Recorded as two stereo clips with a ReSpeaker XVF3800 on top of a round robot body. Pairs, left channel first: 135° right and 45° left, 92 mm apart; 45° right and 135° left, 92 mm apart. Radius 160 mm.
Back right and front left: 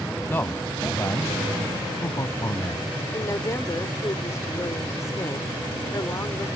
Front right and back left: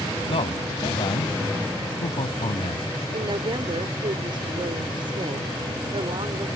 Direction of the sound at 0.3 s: 65° right.